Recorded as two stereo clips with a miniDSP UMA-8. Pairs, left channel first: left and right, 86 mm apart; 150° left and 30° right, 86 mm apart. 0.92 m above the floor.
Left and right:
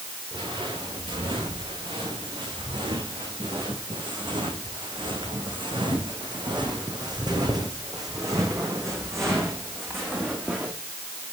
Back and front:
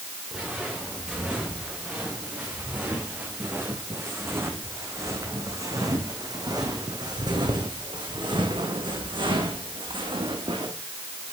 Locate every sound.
0.3 s footsteps: 110° right, 4.5 m; by 10.7 s 20° right, 3 m